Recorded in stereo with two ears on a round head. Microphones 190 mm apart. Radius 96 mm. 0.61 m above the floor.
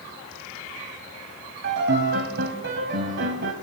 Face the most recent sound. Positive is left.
turn(degrees=-55)  # may be behind; listen again after turning